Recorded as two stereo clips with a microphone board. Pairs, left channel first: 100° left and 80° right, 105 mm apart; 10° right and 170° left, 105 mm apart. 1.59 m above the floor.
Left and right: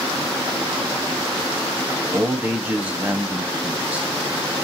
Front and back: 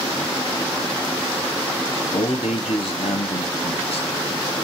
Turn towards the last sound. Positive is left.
turn(degrees=0)